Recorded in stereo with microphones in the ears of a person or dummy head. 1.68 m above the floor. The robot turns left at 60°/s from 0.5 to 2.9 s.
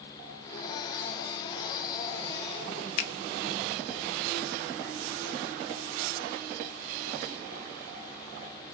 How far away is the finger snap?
About 0.6 m.